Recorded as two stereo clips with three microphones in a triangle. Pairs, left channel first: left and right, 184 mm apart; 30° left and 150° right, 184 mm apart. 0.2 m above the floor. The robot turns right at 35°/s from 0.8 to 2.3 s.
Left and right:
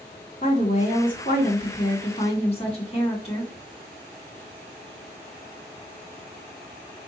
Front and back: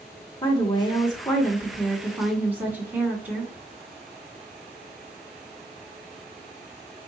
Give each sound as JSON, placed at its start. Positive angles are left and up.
{"t": 0.4, "sound": "a woman speaking", "azimuth_deg": 80, "distance_m": 1.8}